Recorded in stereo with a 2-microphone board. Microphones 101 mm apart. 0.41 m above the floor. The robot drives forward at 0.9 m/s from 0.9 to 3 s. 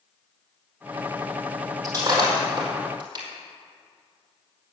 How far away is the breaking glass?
About 5 m.